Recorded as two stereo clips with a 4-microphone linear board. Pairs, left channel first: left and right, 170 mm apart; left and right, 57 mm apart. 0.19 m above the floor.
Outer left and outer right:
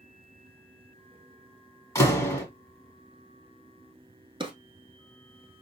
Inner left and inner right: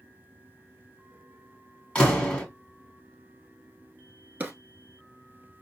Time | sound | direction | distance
1.9 | a door slam | 15° left (ahead or behind) | 1.3 m
4.4 | a drawer | 25° right (ahead or behind) | 0.9 m